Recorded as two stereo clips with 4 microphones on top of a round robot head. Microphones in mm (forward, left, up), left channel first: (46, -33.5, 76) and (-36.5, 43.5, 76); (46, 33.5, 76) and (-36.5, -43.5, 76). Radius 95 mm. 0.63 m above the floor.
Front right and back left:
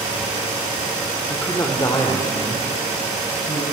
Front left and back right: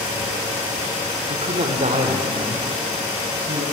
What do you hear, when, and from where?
1.3 s a man speaking: 115° right, 1.8 m; by 3.6 s 100° right, 5 m